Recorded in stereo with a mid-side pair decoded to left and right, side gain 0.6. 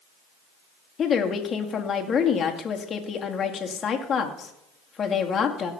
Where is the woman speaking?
40° left, 2 m.